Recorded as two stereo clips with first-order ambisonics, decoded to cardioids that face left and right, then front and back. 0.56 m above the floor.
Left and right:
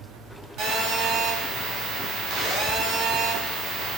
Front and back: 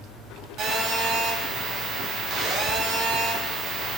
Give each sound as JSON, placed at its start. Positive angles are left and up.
{"t": 0.6, "sound": "a phone buzzing", "azimuth_deg": -130, "distance_m": 3.0}